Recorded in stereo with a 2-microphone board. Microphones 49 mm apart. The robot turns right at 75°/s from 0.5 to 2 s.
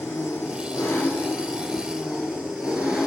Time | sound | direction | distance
0.0 | an engine running | 80° left | 2 m